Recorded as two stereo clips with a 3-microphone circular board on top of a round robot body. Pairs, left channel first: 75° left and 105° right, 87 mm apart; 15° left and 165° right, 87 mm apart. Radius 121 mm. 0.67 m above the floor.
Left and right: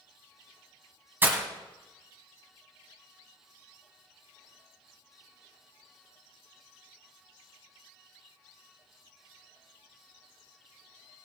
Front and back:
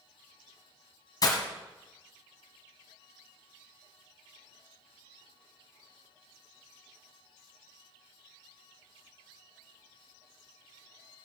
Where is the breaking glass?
35° right, 1.6 m.